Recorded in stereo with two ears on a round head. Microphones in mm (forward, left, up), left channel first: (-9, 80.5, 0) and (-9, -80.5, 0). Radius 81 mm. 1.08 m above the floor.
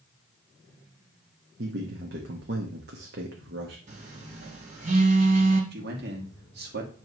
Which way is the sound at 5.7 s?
65° right (ahead or behind).